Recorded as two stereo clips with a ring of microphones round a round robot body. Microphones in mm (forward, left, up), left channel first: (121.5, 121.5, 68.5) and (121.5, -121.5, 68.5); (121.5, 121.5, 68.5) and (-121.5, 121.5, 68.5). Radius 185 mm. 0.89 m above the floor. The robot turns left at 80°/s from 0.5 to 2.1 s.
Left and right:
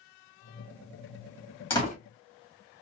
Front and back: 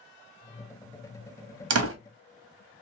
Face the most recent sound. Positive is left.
turn(degrees=140)